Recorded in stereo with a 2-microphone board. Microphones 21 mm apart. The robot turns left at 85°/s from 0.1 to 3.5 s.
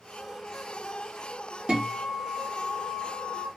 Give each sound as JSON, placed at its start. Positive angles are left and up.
{"t": 1.7, "sound": "a guitar", "azimuth_deg": -75, "distance_m": 1.4}